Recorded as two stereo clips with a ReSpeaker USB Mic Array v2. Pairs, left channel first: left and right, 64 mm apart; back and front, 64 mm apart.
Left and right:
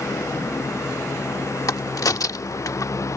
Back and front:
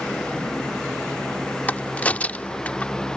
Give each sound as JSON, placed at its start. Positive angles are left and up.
{"t": 1.7, "sound": "a crack", "azimuth_deg": 115}